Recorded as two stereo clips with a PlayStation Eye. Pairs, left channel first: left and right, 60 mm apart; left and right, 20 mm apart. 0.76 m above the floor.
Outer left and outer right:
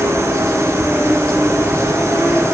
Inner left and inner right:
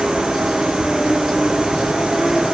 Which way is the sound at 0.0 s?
65° right (ahead or behind).